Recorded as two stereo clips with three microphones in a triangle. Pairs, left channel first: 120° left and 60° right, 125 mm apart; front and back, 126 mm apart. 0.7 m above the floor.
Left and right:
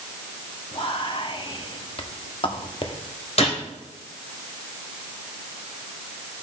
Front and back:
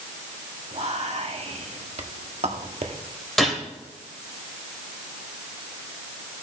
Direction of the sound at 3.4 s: 90° left.